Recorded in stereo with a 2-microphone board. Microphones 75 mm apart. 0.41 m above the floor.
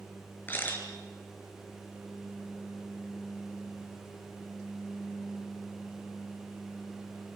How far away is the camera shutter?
About 3 m.